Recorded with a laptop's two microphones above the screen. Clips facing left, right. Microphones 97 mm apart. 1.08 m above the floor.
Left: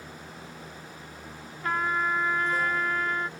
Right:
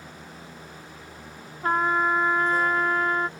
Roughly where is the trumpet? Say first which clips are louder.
Right 5 dB; right.